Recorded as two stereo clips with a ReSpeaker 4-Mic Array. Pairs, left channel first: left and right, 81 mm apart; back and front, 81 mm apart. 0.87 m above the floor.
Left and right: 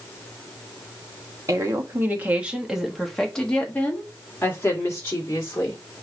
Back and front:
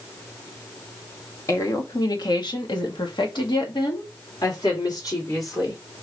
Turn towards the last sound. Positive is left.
turn(degrees=140)